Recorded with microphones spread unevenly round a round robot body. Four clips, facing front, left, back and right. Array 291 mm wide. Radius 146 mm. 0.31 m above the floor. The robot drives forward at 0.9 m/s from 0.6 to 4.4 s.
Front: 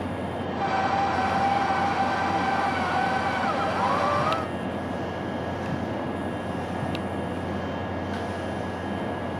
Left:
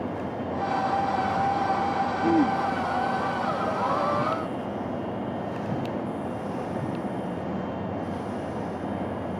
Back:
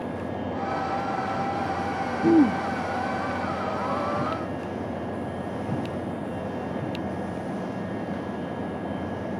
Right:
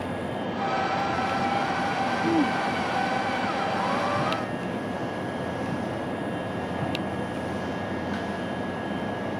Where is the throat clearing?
175° left.